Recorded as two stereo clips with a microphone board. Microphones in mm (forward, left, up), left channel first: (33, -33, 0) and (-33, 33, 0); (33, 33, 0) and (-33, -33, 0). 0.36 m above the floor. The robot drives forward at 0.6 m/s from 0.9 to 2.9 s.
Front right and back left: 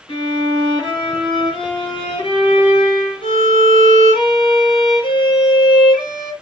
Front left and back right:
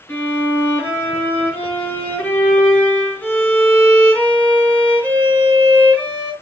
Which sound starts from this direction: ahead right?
A violin, at 0.1 s.